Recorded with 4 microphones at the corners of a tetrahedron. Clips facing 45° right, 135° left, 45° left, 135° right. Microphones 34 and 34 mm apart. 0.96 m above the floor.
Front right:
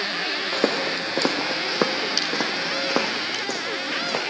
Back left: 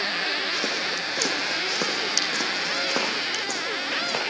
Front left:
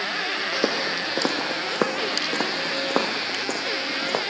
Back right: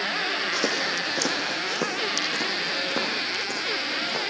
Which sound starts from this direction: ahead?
Footsteps, at 0.5 s.